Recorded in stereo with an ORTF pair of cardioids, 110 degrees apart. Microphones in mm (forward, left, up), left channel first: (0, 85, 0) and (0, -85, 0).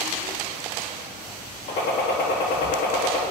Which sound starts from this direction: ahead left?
A gunshot, at 1.7 s.